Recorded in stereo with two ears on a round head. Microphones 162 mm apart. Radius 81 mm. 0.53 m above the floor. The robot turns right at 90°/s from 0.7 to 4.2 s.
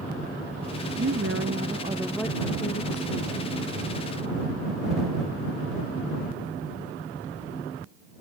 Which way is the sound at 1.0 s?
110° right.